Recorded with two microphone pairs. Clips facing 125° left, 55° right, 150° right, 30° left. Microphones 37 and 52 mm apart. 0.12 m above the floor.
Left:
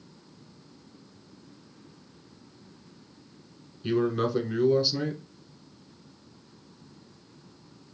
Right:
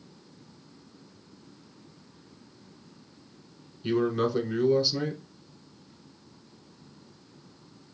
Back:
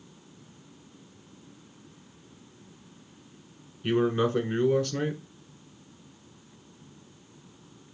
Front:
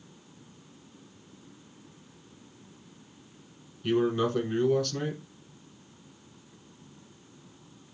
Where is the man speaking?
155° right, 1.1 m.